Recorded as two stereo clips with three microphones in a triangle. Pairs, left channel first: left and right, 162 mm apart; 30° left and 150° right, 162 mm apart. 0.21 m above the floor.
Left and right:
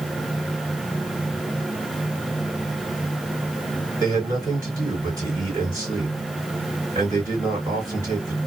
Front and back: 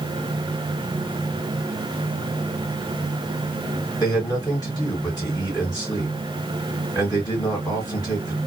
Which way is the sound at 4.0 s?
30° right.